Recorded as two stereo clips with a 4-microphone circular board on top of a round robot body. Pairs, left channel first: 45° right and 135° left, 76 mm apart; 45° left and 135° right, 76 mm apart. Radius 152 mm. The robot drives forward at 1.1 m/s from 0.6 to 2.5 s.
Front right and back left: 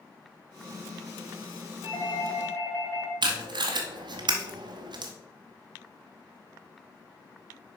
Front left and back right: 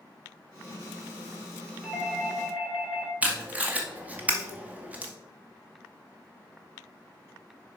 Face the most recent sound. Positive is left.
turn(degrees=155)